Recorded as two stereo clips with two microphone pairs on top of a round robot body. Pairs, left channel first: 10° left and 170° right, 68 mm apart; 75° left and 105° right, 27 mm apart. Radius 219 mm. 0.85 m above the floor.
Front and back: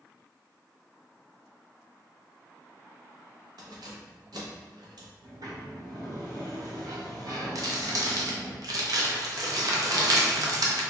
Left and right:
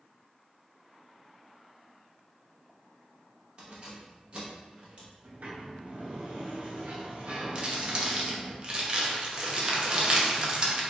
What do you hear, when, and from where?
3.6 s keys jangling: 155° right, 0.7 m
5.2 s a sliding door: 140° right, 0.6 m
7.5 s crumpling: 150° right, 0.8 m